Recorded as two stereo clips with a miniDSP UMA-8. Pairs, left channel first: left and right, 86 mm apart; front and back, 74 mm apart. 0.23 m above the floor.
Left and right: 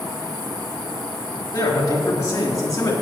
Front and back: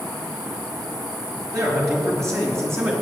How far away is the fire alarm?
I don't hear a fire alarm.